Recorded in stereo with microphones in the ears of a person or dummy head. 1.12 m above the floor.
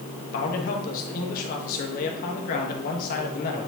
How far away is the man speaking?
About 1.4 m.